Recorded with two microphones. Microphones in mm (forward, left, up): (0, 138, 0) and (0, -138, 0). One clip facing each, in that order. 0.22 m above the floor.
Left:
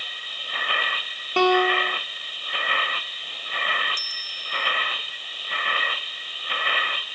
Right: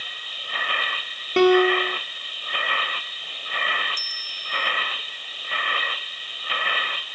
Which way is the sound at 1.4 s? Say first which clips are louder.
Right 5 dB; 25° right (ahead or behind).